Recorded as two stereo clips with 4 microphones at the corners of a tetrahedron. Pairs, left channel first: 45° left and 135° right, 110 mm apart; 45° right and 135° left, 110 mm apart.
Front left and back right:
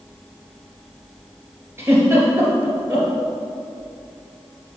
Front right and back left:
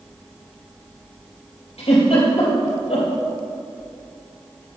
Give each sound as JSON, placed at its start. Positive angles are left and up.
{"t": 1.8, "sound": "a giggle", "azimuth_deg": -70, "distance_m": 2.5}